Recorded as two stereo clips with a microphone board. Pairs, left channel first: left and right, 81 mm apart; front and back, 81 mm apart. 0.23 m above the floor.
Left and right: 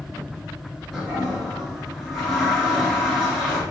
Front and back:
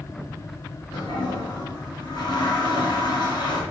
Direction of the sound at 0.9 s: Straight ahead.